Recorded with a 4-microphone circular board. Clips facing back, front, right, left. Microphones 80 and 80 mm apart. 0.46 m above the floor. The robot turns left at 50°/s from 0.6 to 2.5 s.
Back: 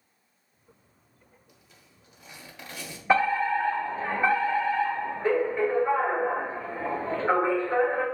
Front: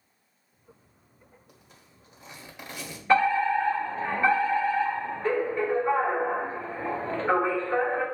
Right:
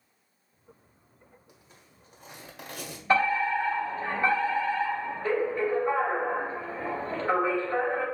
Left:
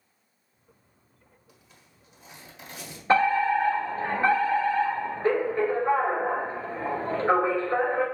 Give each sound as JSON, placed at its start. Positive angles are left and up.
{"t": 1.5, "sound": "a zipper", "azimuth_deg": -20, "distance_m": 1.4}
{"t": 3.1, "sound": "a fire alarm", "azimuth_deg": 115, "distance_m": 2.5}